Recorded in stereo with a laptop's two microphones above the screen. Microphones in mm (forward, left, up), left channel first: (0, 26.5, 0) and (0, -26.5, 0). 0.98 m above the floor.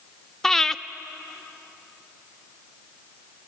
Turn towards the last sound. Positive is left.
turn(degrees=10)  # may be behind; listen again after turning